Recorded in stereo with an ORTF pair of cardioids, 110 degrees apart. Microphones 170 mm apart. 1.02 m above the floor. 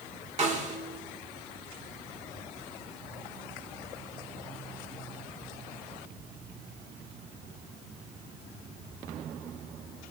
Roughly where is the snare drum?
Ahead right.